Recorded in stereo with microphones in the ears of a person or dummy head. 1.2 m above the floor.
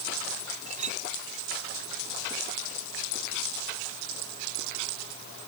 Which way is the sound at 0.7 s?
40° right (ahead or behind).